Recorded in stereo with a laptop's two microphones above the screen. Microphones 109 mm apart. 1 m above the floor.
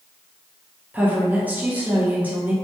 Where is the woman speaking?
15° right (ahead or behind), 0.7 m.